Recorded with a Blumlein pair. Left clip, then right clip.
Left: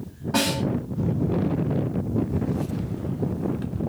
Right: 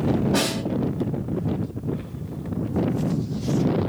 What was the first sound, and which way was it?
A snare drum, 20° left.